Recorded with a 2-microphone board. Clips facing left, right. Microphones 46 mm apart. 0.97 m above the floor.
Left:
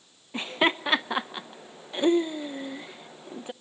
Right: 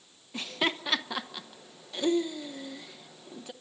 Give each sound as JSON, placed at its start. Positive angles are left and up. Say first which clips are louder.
{"t": 0.3, "sound": "laughter", "louder": "left 6 dB", "side_deg": 25, "distance_m": 0.7}